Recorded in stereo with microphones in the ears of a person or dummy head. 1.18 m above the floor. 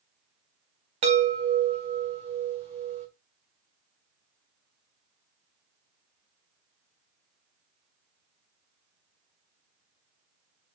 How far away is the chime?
About 1.4 m.